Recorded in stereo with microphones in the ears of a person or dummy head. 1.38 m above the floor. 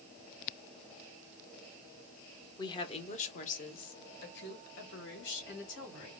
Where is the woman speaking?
20° left (ahead or behind), 0.9 m; by 6.1 s 70° left (ahead or behind), 2.5 m.